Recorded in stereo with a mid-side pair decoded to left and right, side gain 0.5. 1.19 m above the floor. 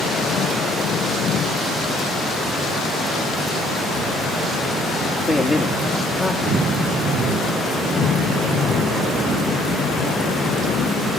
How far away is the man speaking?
About 1.7 m.